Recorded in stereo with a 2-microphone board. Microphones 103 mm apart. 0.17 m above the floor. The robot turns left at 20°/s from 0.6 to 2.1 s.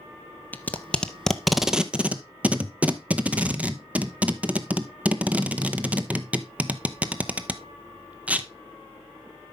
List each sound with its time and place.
0.5 s tape being pulled: 15° left (ahead or behind), 0.7 m; by 8.5 s 15° right (ahead or behind), 0.7 m